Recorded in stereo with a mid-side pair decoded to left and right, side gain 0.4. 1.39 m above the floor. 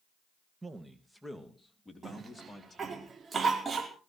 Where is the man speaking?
20° right, 1.7 m; by 3.0 s 25° left, 4 m.